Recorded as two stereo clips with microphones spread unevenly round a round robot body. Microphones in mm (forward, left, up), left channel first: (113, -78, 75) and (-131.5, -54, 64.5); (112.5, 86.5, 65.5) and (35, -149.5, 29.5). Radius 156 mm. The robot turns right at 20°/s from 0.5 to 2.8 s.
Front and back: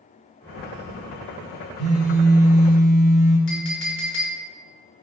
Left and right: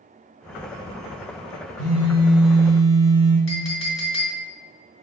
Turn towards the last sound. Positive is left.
turn(degrees=30)